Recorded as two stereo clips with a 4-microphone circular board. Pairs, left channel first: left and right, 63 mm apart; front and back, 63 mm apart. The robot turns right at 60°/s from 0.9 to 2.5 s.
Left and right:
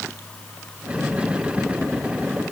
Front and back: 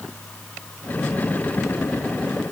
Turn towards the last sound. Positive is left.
No sound to turn to.